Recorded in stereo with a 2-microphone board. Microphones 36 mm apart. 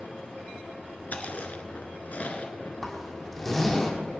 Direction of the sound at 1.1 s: 45° left (ahead or behind).